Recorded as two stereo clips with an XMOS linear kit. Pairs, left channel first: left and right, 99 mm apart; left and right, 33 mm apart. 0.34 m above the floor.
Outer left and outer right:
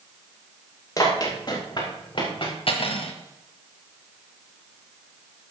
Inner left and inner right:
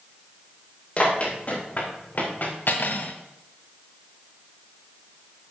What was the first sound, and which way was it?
Running footsteps, 35° left (ahead or behind).